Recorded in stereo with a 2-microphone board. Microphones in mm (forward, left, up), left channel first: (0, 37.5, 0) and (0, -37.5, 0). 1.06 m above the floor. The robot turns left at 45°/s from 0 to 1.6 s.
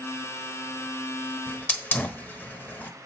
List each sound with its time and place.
1.5 s a hiss: 30° left (ahead or behind), 0.9 m; by 2.9 s 25° left (ahead or behind), 0.9 m